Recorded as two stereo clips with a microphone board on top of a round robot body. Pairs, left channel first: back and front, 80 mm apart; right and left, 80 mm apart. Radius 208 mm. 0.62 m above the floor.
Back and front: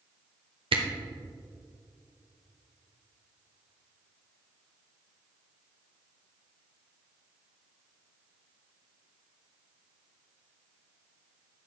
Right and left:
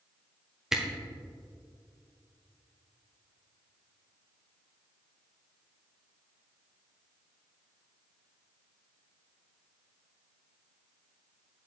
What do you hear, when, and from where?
0.7 s a camera shutter: 10° left, 1.0 m